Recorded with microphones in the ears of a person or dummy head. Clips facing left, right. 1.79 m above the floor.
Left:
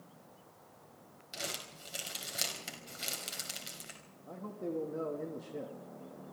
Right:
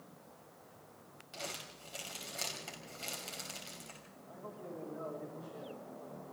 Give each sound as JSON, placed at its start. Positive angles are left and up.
{"t": 1.3, "sound": "crumpling", "side_deg": 20, "distance_m": 5.0}
{"t": 4.3, "sound": "a man speaking", "side_deg": 70, "distance_m": 3.0}